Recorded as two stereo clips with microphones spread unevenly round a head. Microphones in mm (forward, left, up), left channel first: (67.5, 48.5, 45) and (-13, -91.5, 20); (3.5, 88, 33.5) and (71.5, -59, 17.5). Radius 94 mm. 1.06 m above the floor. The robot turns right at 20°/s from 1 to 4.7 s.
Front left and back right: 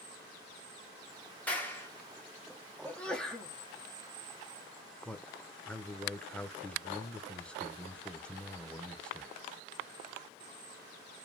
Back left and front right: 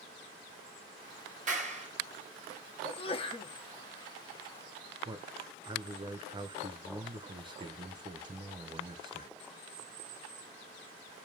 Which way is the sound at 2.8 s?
145° left.